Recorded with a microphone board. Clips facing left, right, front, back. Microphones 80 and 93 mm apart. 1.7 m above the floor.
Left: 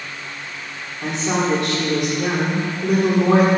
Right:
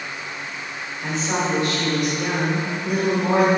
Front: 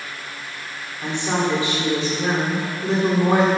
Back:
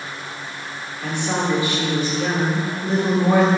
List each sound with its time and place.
1.0 s a woman speaking: 70° left, 4.5 m